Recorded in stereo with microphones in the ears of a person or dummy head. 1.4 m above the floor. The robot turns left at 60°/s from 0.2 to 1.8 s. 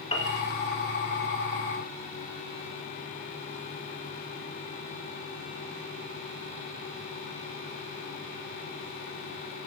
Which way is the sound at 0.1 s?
35° left (ahead or behind).